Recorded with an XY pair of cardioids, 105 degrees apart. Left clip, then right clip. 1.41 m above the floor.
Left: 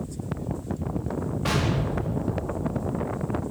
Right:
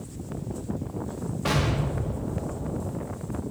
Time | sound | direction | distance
1.4 | an explosion | straight ahead | 3.5 m